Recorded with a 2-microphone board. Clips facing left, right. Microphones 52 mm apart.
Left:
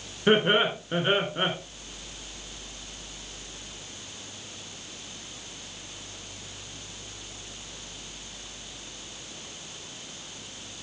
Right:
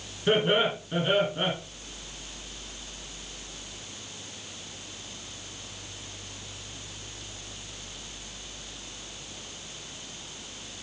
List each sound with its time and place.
0.3 s laughter: 35° left (ahead or behind), 1.3 m